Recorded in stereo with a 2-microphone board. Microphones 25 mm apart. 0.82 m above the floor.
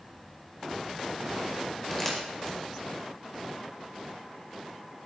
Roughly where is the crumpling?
Centre.